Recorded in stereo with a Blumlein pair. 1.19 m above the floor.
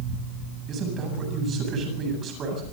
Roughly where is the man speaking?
Ahead right.